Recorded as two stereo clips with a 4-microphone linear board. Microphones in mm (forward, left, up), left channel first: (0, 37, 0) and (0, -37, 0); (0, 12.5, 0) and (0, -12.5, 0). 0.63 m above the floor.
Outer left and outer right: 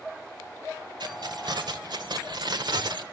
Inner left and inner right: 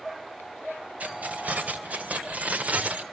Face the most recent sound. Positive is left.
turn(degrees=-75)  # may be behind; listen again after turning